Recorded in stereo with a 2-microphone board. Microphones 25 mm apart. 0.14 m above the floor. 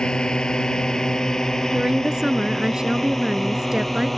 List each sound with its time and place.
0.0 s a drone: 35° left (ahead or behind); by 4.2 s 10° left (ahead or behind)
1.7 s a woman speaking: 25° right (ahead or behind)